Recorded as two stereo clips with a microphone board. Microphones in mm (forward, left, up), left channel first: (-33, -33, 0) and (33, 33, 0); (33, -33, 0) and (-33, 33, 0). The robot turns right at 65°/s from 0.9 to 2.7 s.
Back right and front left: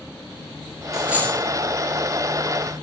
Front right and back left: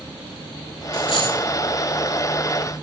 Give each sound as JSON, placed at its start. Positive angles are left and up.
{"t": 0.9, "sound": "a dropped coin", "azimuth_deg": -40, "distance_m": 8.0}